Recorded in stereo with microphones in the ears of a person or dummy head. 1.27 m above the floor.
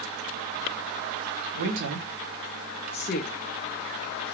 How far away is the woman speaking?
About 1.3 m.